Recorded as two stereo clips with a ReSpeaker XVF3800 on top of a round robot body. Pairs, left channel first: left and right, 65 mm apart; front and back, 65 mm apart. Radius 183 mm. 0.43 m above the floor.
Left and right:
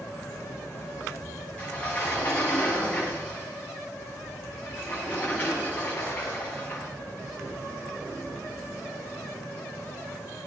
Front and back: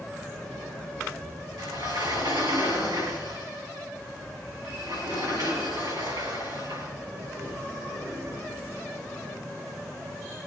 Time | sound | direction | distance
1.6 | a sliding door | 155° left | 5 m